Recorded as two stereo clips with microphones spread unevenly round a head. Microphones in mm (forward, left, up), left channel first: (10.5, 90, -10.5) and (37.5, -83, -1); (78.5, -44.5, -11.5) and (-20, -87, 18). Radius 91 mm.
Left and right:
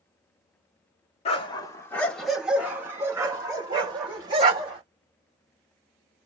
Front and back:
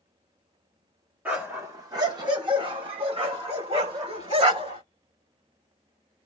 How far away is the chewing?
No chewing in this recording.